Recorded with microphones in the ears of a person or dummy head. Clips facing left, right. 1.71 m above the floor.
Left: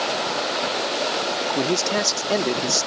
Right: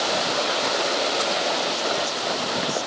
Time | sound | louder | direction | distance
1.6 | a man speaking | left 4 dB | 80° left | ?